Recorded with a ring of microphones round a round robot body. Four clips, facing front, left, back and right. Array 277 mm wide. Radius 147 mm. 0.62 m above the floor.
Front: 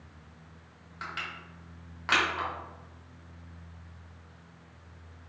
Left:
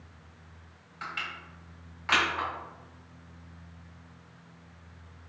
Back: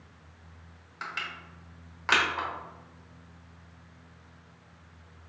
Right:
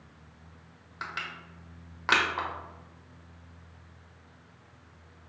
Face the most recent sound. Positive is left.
turn(degrees=-95)